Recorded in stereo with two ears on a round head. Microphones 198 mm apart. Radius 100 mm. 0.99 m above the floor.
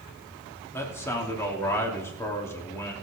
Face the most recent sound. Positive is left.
turn(degrees=10)  # may be behind; listen again after turning